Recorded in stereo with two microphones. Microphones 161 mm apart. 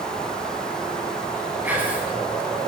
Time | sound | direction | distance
1.6 | whispering | 10° right (ahead or behind) | 1.2 m